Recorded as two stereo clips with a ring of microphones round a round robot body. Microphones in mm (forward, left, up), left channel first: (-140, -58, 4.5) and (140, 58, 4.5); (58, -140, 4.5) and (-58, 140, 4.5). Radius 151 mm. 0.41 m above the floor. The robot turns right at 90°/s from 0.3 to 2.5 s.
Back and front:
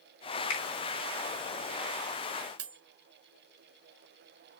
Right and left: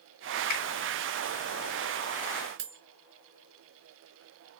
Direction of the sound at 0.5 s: 125° right.